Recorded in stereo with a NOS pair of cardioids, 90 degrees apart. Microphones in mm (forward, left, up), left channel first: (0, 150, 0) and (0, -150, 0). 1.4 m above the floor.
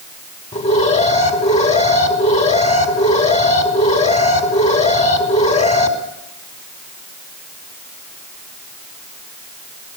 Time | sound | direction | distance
0.5 | an alarm | 20° left | 5.5 m